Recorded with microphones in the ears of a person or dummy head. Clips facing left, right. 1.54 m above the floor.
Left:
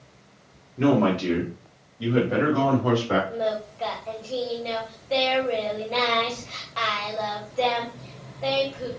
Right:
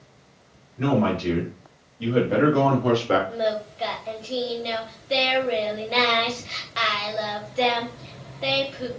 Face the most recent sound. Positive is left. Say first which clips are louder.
# right 1 dB
turn(degrees=-25)  # may be behind; listen again after turning